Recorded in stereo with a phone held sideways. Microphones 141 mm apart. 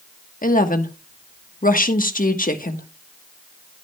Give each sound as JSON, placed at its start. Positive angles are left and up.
{"t": 0.4, "sound": "a woman speaking", "side_deg": 80, "distance_m": 1.3}